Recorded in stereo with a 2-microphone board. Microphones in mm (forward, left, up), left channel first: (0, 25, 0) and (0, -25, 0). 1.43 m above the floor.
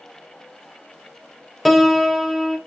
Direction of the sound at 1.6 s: Centre (ahead or behind).